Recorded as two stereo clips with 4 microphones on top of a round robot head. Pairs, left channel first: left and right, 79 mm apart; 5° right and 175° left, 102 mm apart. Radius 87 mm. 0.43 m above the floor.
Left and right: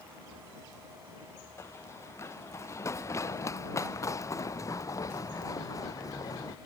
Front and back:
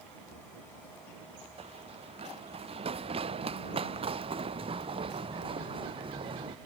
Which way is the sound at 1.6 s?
145° left.